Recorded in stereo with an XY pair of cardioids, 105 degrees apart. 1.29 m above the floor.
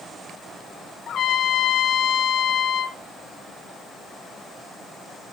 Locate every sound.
1.1 s a trumpet: 55° left, 2 m